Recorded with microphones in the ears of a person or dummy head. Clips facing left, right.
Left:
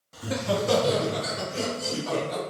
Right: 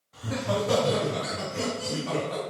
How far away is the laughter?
About 0.8 m.